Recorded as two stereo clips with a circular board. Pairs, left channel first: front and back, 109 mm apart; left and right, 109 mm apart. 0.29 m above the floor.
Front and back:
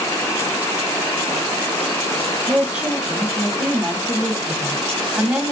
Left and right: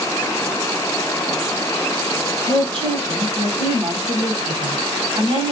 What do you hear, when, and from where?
2.5 s a woman speaking: 100° right, 1.3 m